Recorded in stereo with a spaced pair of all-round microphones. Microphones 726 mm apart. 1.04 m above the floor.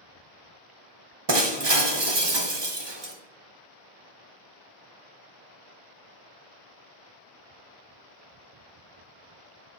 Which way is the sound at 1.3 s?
35° right (ahead or behind).